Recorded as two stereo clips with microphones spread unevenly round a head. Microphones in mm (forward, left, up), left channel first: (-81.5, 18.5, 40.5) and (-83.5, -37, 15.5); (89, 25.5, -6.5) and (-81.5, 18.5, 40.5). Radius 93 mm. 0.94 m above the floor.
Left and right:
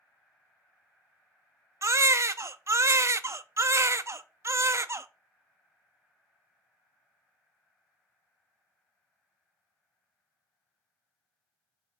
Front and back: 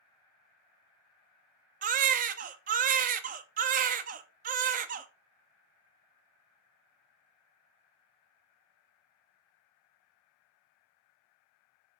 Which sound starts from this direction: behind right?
A baby crying, at 1.8 s.